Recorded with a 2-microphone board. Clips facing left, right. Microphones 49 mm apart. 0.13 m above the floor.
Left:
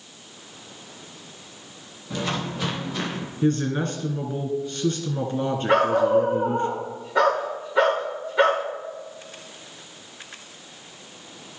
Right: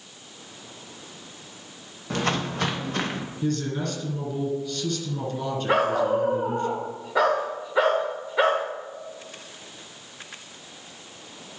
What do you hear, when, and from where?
2.1 s footsteps: 55° right (ahead or behind), 2 m
3.4 s a man speaking: 35° left (ahead or behind), 2.0 m
5.7 s a dog barking: 5° right (ahead or behind), 2.5 m